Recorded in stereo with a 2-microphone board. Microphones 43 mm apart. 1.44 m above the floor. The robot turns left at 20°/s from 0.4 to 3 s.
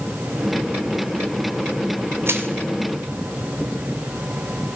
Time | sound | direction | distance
2.3 | crushing | 65° right (ahead or behind) | 2 m